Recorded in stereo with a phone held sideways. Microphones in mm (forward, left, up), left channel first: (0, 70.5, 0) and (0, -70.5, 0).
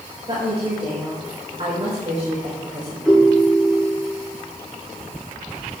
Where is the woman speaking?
40° right (ahead or behind), 4 m.